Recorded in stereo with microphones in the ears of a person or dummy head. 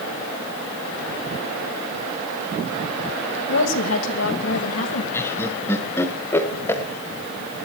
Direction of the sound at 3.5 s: 85° left.